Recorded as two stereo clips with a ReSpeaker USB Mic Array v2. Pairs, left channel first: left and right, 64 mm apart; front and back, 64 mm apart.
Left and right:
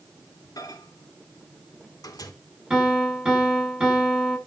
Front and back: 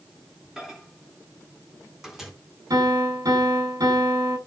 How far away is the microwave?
About 3.5 m.